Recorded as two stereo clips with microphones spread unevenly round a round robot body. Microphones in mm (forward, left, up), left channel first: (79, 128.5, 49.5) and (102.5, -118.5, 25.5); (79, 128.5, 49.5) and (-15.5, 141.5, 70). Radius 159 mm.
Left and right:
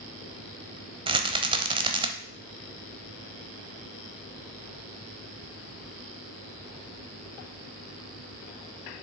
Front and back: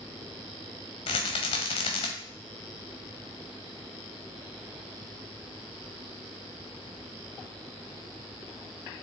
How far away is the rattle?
About 0.7 m.